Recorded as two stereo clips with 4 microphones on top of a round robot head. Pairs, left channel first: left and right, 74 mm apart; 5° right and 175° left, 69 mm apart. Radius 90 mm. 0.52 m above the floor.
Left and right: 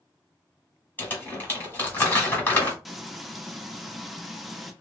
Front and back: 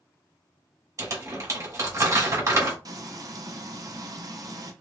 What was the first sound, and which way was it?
Crumpling, 150° left.